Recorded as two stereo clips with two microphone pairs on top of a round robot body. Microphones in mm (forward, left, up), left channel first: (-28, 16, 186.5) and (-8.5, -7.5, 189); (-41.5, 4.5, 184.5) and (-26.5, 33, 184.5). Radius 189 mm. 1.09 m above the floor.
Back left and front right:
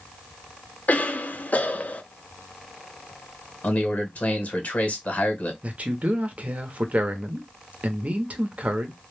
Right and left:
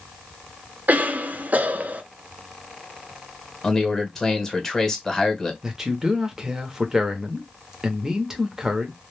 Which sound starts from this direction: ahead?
A man speaking, at 5.6 s.